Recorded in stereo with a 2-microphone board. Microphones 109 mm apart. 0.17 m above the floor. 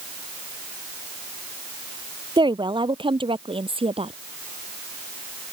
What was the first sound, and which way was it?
A woman speaking, 45° right (ahead or behind).